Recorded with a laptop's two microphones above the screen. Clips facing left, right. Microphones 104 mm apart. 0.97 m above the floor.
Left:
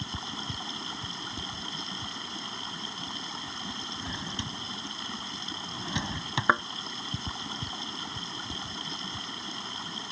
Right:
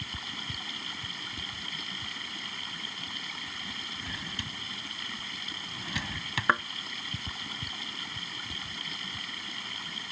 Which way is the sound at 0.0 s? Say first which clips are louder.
Left 4 dB; 25° left (ahead or behind).